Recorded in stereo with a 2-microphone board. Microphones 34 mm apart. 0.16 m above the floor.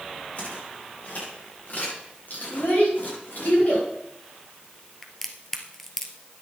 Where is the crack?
10° left (ahead or behind), 1.5 m.